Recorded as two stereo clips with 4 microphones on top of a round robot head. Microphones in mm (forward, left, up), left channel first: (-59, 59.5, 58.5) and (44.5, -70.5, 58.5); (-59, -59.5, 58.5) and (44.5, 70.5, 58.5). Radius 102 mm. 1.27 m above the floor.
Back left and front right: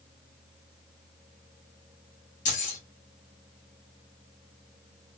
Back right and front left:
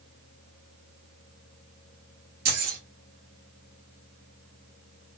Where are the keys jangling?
85° left, 1.7 m.